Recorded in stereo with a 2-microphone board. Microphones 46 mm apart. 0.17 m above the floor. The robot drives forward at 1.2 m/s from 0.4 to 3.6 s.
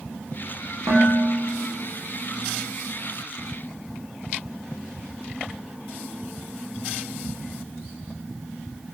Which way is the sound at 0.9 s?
85° right.